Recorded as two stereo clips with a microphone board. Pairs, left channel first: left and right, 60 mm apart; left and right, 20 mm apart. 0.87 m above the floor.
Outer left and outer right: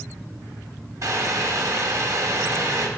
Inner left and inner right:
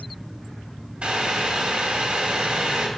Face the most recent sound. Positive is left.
turn(degrees=-60)  # may be behind; listen again after turning